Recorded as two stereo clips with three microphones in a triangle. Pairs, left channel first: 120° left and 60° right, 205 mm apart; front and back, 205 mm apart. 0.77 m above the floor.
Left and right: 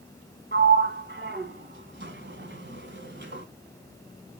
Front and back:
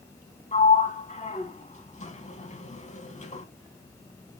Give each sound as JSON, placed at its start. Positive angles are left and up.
{"t": 0.5, "sound": "a sliding door", "azimuth_deg": -50, "distance_m": 1.1}